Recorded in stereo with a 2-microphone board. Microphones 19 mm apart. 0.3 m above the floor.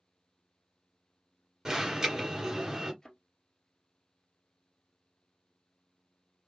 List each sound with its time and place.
1.6 s an alarm: 20° right (ahead or behind), 2 m
3.0 s a thud: 30° left (ahead or behind), 1.7 m